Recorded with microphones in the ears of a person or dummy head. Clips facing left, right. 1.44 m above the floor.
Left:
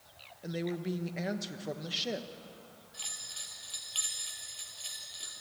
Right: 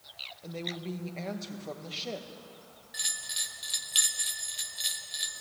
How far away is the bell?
About 1.3 m.